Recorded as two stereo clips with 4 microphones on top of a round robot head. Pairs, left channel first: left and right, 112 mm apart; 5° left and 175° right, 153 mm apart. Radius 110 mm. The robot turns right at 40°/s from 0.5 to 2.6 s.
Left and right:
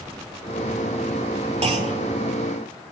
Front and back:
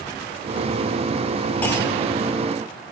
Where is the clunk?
75° right, 2 m; by 2.0 s 60° right, 2 m.